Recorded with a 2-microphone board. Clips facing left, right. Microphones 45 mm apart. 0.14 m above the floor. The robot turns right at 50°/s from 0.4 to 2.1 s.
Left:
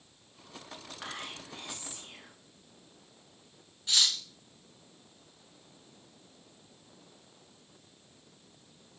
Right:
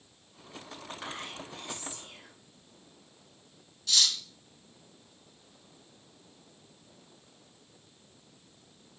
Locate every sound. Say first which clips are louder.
1.0 s whispering: even; 10° left, 1.5 m; by 2.3 s 65° left, 1.5 m
3.9 s cutlery clinking: even; 25° left (ahead or behind), 0.7 m